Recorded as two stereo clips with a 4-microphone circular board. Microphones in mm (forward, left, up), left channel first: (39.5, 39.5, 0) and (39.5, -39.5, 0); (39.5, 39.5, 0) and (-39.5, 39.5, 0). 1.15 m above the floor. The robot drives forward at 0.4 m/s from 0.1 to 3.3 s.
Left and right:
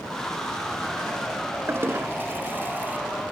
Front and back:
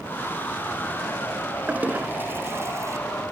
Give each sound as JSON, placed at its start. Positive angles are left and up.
{"t": 1.7, "sound": "a toilet flushing", "azimuth_deg": -125, "distance_m": 1.0}